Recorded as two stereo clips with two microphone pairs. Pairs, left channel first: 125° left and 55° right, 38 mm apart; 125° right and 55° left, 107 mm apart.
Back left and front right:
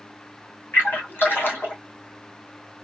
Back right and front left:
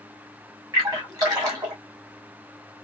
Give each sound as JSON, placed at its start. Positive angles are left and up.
{"t": 0.7, "sound": "a splash", "azimuth_deg": 105, "distance_m": 2.5}